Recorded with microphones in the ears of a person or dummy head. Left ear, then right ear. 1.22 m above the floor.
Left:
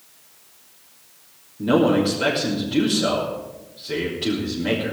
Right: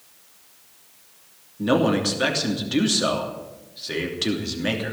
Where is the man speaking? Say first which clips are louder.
Left 2 dB; 55° right (ahead or behind), 3 m.